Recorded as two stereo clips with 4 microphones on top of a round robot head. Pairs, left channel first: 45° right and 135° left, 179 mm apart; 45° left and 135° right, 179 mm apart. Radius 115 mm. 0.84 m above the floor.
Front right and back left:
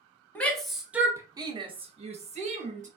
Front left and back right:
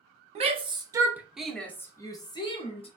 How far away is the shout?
About 0.9 m.